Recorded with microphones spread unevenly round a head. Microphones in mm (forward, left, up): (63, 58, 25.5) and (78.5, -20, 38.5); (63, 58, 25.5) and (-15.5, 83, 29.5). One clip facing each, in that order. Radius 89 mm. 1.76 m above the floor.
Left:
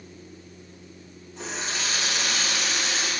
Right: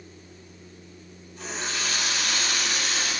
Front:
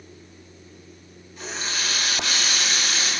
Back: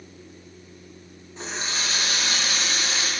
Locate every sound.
1.4 s a running tap: 110° left, 1.2 m